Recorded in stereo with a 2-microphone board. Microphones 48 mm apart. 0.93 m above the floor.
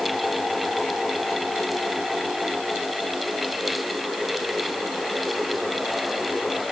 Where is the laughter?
No laughter in this recording.